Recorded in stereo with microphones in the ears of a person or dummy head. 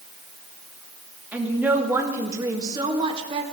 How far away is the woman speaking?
About 3 m.